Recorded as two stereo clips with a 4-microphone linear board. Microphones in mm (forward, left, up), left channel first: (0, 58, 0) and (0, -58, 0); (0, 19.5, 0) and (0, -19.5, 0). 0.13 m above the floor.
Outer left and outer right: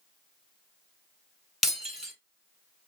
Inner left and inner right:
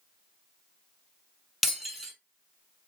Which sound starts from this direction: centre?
Breaking glass, at 1.6 s.